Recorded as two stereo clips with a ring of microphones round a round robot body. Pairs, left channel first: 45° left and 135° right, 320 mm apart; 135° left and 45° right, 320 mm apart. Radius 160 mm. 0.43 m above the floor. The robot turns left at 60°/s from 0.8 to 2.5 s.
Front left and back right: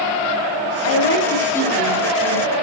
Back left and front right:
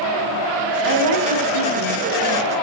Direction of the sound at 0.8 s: 5° left.